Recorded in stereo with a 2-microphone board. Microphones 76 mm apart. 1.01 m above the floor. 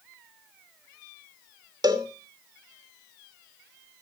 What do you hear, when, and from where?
1.8 s a cowbell: 70° right (ahead or behind), 2 m